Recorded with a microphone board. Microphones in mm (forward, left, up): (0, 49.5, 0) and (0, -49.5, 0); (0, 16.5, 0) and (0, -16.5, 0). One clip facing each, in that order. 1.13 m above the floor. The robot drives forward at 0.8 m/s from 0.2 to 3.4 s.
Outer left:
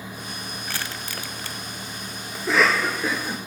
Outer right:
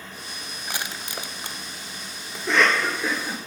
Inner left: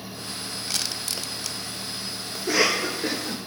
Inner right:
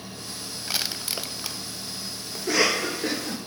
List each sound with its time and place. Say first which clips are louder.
0.7 s crushing: outer right 2 dB, inner right 2 dB; 15° right (ahead or behind), 1.0 m
2.4 s a cough: outer left 1 dB, inner left 1 dB; 5° left (ahead or behind), 1.6 m